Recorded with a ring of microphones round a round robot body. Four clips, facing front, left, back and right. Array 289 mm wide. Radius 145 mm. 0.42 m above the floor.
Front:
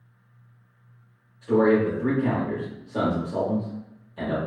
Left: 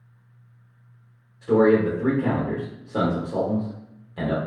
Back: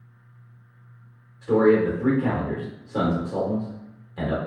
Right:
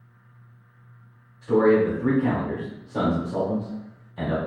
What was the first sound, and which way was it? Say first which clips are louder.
A man speaking: left 1 dB, back 2 dB; 120° left.